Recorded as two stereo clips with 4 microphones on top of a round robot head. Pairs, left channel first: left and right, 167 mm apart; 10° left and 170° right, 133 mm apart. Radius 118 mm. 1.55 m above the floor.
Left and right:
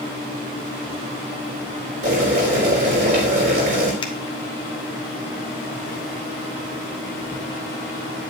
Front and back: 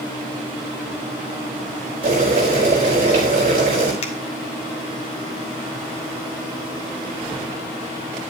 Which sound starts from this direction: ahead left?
A finger snap, at 4.0 s.